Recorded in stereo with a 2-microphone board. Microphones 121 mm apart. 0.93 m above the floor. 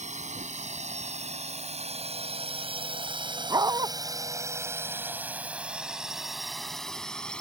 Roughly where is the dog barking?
Right.